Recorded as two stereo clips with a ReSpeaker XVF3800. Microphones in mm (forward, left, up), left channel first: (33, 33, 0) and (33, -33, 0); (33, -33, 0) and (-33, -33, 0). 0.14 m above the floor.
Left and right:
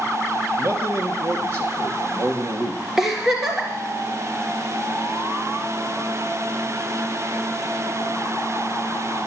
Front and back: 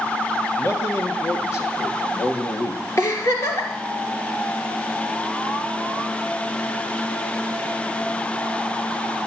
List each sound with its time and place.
0.6 s a man speaking: 45° right, 2.5 m
3.0 s a giggle: 10° right, 2.5 m